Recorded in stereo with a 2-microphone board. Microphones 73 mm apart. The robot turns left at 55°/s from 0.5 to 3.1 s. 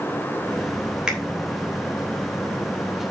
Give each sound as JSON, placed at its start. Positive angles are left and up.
{"t": 1.1, "sound": "a finger snap", "side_deg": -10, "distance_m": 3.0}